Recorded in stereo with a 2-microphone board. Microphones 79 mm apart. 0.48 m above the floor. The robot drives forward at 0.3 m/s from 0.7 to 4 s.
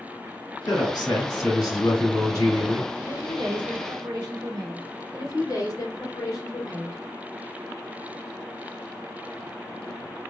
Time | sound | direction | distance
0.7 | a man speaking | 60° left (ahead or behind) | 2.5 m
3.0 | a woman speaking | 60° right (ahead or behind) | 1.6 m
5.1 | a woman speaking | 50° left (ahead or behind) | 2.5 m